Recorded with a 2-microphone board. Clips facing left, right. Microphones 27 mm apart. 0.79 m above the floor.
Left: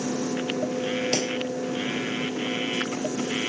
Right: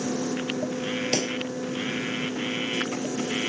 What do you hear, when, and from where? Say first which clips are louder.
1.1 s a pop: even; 5° left (ahead or behind)